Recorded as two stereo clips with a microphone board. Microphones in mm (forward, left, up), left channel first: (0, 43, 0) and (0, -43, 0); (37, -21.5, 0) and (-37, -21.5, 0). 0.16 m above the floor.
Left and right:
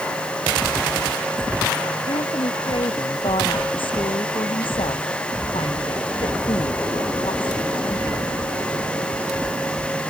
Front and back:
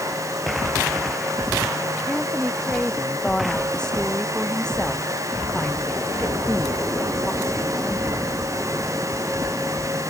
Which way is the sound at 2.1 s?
80° left.